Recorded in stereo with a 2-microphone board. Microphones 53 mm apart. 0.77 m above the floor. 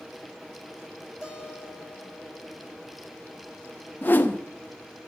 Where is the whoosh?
35° left (ahead or behind), 0.6 m.